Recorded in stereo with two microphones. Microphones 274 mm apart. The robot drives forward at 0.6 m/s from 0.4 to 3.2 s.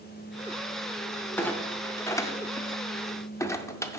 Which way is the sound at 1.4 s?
5° left (ahead or behind).